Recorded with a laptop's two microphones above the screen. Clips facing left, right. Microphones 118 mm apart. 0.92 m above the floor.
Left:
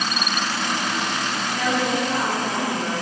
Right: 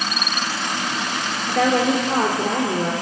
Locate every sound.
1.5 s a woman speaking: 80° right, 2.5 m